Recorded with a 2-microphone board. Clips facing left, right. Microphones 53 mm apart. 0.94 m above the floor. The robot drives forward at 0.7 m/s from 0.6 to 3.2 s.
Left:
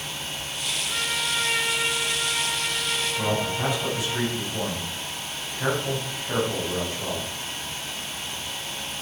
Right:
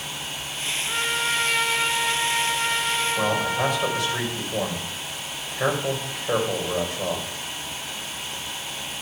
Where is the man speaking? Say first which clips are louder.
Right 2 dB; 60° right (ahead or behind), 3.5 m.